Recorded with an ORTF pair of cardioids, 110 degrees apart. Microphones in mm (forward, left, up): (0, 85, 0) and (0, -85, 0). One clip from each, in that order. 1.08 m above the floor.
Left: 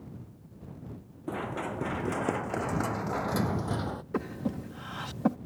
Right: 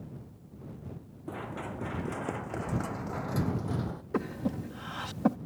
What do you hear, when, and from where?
1.3 s running footsteps: 30° left; by 4.0 s 45° left
4.1 s breathing: 5° right